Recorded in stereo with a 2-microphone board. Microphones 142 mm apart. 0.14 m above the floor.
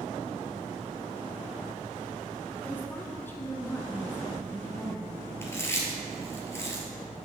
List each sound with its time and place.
2.6 s a woman speaking: 10° left (ahead or behind), 1.2 m; by 5.3 s 15° left (ahead or behind), 2.5 m
5.4 s chewing: 20° left (ahead or behind), 1.5 m